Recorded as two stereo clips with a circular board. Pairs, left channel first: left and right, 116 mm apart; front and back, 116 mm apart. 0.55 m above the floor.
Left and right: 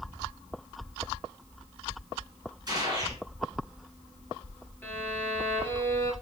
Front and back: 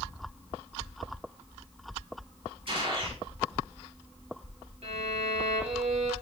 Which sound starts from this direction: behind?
A violin, at 4.8 s.